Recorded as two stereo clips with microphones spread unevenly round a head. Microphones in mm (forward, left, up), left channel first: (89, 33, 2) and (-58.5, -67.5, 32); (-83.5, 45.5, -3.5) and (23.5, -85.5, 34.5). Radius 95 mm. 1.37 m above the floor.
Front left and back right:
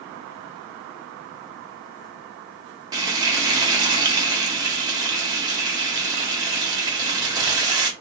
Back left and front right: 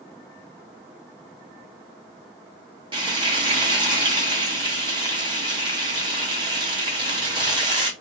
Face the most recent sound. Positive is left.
turn(degrees=-90)